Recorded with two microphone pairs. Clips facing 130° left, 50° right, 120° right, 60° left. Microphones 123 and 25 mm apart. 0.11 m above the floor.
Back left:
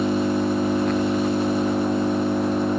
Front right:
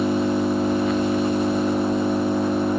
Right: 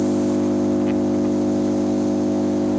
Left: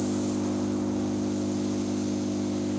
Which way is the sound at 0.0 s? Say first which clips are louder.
Front right 1 dB, right 9 dB; 135° right.